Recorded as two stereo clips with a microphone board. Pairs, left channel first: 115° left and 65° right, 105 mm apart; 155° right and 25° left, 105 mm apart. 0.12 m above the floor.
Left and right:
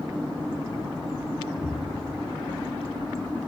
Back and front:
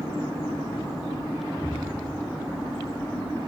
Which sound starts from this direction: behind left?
An explosion, at 1.6 s.